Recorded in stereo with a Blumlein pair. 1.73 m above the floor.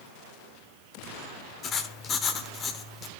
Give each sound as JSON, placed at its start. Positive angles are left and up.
{"t": 1.6, "sound": "writing", "azimuth_deg": 25, "distance_m": 1.0}